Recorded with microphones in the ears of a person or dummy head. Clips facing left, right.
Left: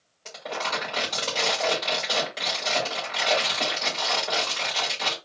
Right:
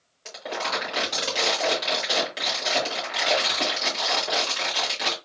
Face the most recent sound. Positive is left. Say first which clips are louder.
# right 1 dB
turn(degrees=-5)  # may be behind; listen again after turning